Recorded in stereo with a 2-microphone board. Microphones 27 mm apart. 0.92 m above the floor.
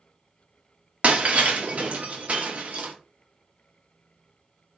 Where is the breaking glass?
55° right (ahead or behind), 0.6 m.